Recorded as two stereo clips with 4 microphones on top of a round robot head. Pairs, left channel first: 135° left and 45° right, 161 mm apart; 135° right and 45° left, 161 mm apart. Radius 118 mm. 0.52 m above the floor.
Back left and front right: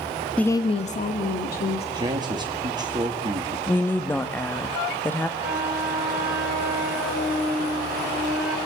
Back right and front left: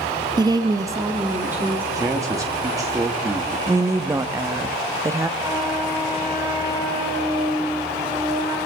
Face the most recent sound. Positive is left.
turn(degrees=-15)